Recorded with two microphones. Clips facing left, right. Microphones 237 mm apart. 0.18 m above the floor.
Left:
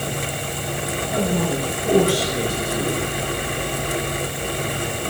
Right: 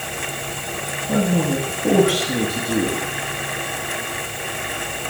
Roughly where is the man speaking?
Right.